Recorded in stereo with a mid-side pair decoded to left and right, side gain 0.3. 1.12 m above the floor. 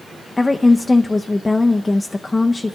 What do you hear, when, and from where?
0.4 s a woman speaking: 20° left, 0.7 m